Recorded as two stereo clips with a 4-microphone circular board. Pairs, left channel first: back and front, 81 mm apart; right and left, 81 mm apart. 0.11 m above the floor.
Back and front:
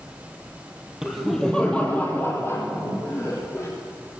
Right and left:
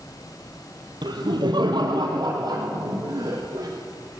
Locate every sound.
1.0 s laughter: 85° left, 2.5 m; by 3.7 s 130° left, 4.5 m